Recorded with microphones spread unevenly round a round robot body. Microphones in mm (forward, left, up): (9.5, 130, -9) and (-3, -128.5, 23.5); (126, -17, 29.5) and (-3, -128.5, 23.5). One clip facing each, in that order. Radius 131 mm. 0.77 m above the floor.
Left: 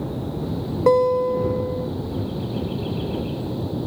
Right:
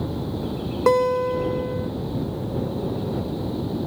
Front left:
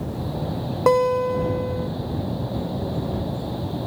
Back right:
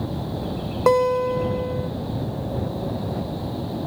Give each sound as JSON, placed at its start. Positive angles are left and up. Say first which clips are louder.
{"t": 0.9, "sound": "a guitar", "louder": "left 2 dB, even", "azimuth_deg": -55}